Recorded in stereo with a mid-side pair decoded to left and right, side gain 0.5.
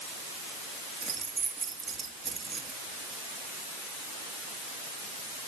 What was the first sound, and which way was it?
Keys jangling, 30° right.